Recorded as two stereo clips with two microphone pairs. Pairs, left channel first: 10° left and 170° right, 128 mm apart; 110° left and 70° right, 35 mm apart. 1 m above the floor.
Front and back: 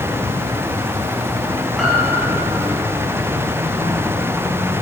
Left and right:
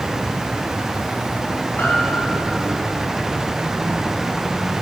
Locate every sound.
0.0 s an insect: straight ahead, 3 m
1.8 s a piano: 100° left, 1.8 m